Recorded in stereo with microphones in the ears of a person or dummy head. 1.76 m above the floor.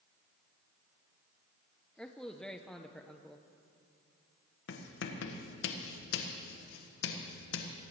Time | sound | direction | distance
2.0 | a man speaking | 5° left (ahead or behind) | 0.6 m
4.7 | writing | 70° left (ahead or behind) | 1.5 m